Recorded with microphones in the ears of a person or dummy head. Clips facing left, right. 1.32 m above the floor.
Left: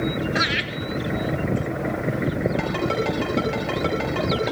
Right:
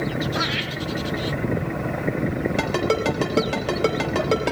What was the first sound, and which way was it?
Laughter, 30° left (ahead or behind).